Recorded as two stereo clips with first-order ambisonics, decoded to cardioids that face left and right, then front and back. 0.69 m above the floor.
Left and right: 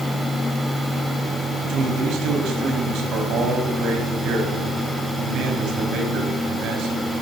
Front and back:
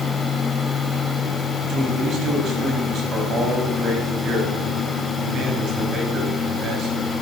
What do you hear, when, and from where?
1.6 s a man speaking: 130° right, 4.5 m